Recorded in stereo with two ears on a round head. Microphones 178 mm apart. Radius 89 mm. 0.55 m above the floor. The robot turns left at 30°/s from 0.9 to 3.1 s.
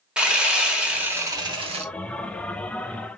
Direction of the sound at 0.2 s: 5° right (ahead or behind).